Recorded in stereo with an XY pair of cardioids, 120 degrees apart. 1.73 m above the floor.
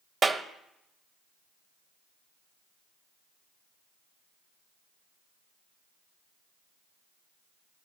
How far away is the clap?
About 1.1 m.